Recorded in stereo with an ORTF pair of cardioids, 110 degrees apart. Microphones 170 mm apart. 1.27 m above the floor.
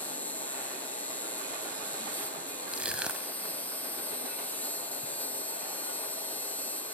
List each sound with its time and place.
0.0 s an insect: 10° left
2.7 s crushing: 5° right